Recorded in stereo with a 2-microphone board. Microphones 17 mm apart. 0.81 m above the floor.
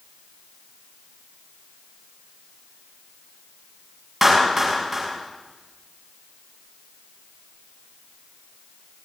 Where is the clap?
10° right (ahead or behind), 6 m.